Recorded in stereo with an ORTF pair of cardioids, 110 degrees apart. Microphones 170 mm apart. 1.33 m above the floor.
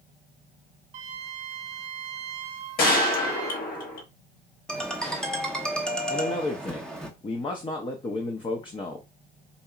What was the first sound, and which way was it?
A flute, 45° right.